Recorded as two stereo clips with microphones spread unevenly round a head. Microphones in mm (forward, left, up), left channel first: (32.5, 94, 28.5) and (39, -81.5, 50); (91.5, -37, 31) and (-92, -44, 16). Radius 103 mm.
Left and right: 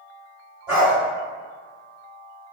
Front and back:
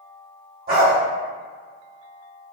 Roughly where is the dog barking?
Behind right.